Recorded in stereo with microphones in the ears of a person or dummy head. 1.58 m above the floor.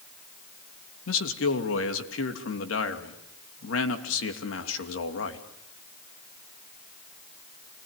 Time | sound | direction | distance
1.1 | a man speaking | 85° left | 2.5 m